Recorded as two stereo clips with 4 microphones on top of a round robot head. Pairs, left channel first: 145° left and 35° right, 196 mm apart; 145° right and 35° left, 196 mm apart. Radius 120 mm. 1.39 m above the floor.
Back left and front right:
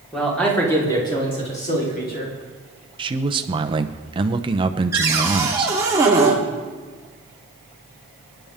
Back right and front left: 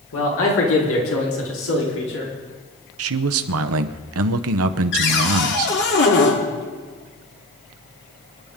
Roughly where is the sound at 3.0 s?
Ahead left.